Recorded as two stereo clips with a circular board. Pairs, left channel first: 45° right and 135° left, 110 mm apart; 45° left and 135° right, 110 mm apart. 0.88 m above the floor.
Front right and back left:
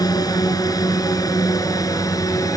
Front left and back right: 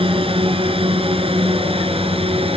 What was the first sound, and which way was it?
A drone, 100° right.